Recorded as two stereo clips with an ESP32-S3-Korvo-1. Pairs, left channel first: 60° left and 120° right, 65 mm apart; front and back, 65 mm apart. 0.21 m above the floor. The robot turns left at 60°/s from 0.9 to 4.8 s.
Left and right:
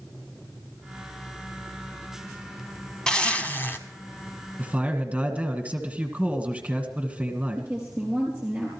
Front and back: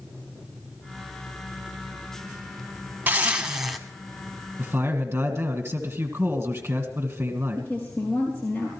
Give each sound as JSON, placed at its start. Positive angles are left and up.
{"t": 3.1, "sound": "a zipper", "azimuth_deg": 130, "distance_m": 1.4}
{"t": 4.6, "sound": "a man speaking", "azimuth_deg": -145, "distance_m": 1.8}
{"t": 7.6, "sound": "a woman speaking", "azimuth_deg": -60, "distance_m": 4.5}